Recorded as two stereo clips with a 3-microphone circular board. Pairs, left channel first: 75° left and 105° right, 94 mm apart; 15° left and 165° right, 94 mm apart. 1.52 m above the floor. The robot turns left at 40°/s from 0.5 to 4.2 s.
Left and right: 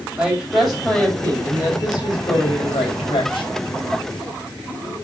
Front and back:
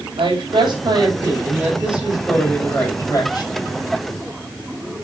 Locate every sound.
0.2 s a woman speaking: 175° left, 7.5 m; by 3.6 s 50° left, 7.5 m